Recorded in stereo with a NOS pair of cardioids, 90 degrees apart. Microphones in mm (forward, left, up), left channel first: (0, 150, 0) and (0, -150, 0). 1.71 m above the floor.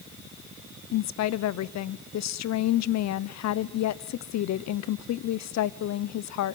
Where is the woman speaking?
65° left, 0.8 m.